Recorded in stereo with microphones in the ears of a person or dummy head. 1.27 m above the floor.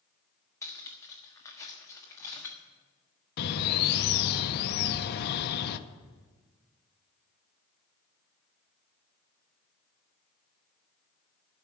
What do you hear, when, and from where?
0.6 s cutlery clinking: 15° left (ahead or behind), 1.4 m
3.4 s a bird: 55° left (ahead or behind), 0.6 m